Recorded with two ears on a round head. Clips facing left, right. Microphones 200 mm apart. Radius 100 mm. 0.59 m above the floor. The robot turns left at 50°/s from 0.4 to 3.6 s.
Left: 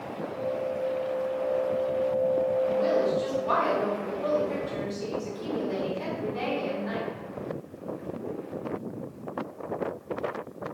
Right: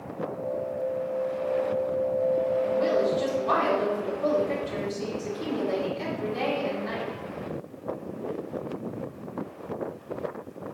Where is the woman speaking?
45° right, 1.4 m; by 7.1 s 95° right, 1.4 m.